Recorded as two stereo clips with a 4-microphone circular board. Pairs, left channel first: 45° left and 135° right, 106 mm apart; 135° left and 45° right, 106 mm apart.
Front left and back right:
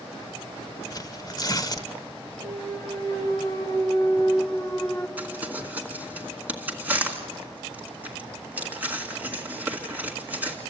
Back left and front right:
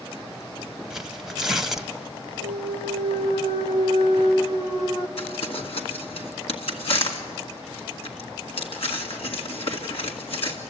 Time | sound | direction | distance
0.9 | tearing paper | 40° left | 1.0 m
2.4 | a clunk | 100° left | 1.3 m
5.2 | crumpling | 150° left | 2 m